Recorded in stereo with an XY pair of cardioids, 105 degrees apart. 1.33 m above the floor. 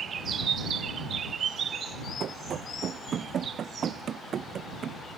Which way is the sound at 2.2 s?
50° right.